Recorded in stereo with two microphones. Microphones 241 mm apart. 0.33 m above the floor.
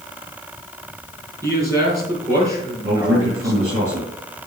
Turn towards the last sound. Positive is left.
turn(degrees=-70)  # may be behind; listen again after turning